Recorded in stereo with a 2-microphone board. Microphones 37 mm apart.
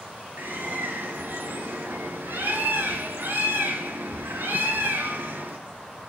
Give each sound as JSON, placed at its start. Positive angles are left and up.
{"t": 0.4, "sound": "a bird", "side_deg": -70, "distance_m": 4.5}